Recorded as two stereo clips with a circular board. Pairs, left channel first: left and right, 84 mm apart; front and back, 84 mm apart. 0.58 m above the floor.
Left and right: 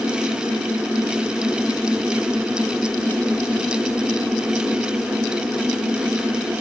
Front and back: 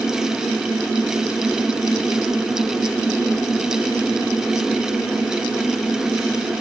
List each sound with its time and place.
Only background noise.